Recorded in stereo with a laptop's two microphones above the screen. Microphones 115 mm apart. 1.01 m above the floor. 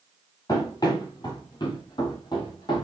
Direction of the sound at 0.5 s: 30° left (ahead or behind).